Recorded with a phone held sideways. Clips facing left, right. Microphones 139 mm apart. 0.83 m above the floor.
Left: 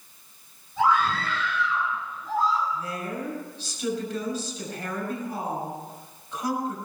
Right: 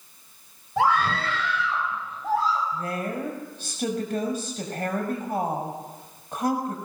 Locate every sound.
0.8 s a scream: 75° right (ahead or behind), 4.5 m; by 2.6 s 80° right, 5.5 m
2.7 s a woman speaking: 55° right (ahead or behind), 5.5 m